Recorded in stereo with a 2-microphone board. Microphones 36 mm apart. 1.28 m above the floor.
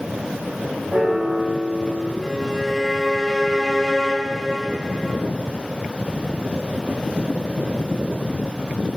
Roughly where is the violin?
Centre.